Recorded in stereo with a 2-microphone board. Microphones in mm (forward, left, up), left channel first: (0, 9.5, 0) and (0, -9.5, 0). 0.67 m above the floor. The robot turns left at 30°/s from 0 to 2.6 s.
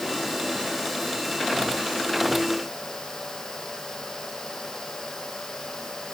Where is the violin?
No violin in this recording.